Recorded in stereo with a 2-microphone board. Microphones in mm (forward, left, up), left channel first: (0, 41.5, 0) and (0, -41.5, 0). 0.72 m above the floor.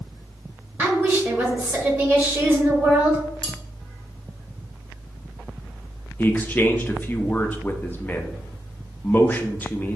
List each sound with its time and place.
0.8 s a woman speaking: 25° right (ahead or behind), 1.3 m
3.4 s cutlery clinking: 70° right (ahead or behind), 1.3 m
6.2 s a man speaking: 20° left (ahead or behind), 0.5 m